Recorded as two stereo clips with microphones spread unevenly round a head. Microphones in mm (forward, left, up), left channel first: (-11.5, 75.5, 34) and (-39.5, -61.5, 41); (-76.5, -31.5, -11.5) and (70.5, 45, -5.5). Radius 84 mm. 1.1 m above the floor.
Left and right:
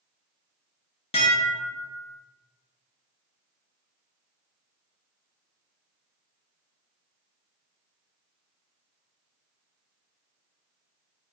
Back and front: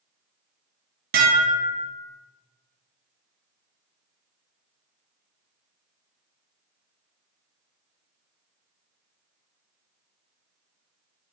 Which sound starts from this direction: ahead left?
Dishes clattering, at 1.1 s.